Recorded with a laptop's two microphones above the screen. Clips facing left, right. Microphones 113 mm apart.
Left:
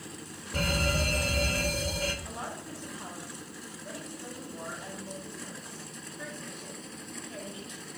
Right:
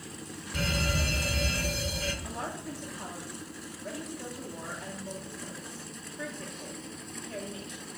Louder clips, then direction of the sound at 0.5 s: Left 2 dB; 40° left (ahead or behind).